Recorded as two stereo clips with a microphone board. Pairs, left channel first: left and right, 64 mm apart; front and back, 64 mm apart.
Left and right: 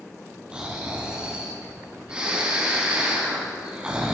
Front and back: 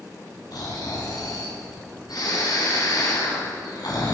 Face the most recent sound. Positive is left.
turn(degrees=-15)